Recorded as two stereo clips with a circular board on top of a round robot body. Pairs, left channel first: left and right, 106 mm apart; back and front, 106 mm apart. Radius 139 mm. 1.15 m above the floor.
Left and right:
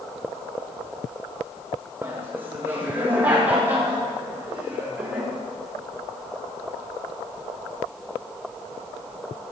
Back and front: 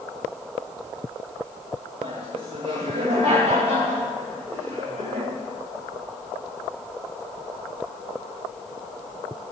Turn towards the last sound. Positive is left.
turn(degrees=-15)